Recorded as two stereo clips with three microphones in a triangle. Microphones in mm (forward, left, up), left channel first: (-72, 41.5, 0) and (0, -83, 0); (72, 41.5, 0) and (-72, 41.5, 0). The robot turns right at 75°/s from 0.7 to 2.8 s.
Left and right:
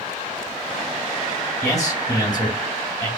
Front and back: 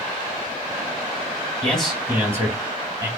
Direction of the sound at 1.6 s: 75° left.